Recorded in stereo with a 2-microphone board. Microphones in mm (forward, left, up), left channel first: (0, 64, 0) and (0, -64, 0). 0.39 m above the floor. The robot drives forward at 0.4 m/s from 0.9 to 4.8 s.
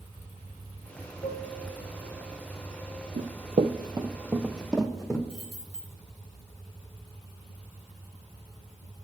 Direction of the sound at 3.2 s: 65° right (ahead or behind).